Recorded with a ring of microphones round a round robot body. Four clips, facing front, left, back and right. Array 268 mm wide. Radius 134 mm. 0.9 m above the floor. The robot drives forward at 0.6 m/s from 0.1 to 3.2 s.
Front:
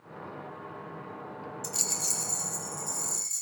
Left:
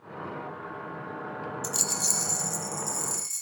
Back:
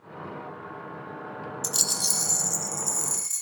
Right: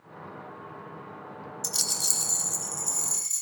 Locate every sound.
1.6 s a rattle: 140° right, 0.5 m; by 3.4 s 165° right, 1.4 m